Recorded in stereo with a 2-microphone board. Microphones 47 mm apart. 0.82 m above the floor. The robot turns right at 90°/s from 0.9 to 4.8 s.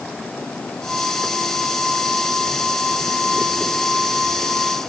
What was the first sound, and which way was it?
Only background noise.